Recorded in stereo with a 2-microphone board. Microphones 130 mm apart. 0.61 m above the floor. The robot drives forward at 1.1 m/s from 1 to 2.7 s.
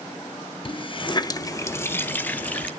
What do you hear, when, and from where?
0.7 s a running tap: 40° left (ahead or behind), 0.7 m; by 2.7 s 10° left (ahead or behind), 2 m